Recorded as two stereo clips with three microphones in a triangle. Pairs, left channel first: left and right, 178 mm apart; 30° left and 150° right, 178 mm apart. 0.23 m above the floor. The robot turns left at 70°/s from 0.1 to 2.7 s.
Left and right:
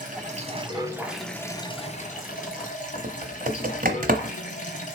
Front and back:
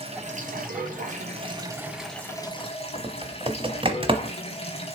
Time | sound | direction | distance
0.0 | running water | 105° right | 1.6 m
3.0 | typing on a keyboard | 100° right | 1.0 m